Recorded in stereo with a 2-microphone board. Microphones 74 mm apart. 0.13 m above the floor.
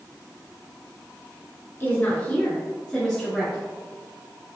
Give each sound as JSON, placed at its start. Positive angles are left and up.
{"t": 1.8, "sound": "a woman speaking", "side_deg": 25, "distance_m": 1.6}